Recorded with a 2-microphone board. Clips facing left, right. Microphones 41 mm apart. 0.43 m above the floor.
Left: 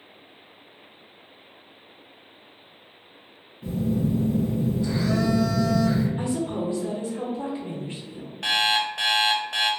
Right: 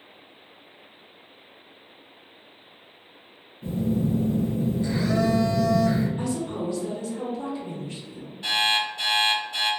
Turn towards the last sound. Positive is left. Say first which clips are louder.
# left 1 dB
turn(degrees=75)  # may be behind; listen again after turning